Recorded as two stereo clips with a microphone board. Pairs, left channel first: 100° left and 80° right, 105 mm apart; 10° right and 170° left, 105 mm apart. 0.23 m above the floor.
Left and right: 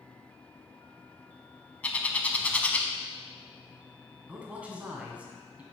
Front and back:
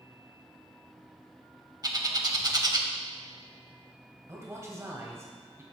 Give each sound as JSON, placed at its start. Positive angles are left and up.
{"t": 1.8, "sound": "a bird", "azimuth_deg": 165, "distance_m": 0.7}
{"t": 4.3, "sound": "a man speaking", "azimuth_deg": -145, "distance_m": 1.6}